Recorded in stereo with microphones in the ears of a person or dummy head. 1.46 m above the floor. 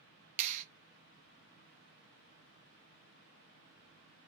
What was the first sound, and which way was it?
A clap, 40° right (ahead or behind).